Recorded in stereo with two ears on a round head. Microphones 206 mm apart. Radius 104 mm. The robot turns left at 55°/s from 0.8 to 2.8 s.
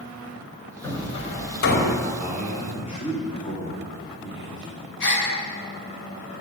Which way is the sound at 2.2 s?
170° right.